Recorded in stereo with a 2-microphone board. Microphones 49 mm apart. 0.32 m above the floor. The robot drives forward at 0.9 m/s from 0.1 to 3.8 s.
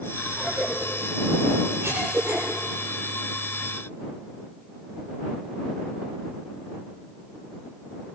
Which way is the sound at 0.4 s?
60° right (ahead or behind).